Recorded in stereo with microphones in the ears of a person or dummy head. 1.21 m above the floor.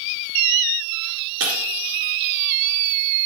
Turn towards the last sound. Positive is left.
turn(degrees=-70)  # may be behind; listen again after turning